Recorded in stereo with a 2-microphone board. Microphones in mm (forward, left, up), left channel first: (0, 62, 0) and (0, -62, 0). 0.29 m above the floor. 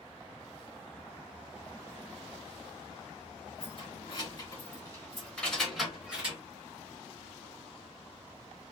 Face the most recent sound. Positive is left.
turn(degrees=-10)  # may be behind; listen again after turning